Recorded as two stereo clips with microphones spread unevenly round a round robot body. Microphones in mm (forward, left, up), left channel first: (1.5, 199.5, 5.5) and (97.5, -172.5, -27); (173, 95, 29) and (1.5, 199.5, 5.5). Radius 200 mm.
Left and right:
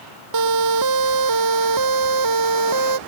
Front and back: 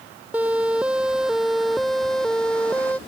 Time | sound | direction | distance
0.3 | a siren | 125° right | ?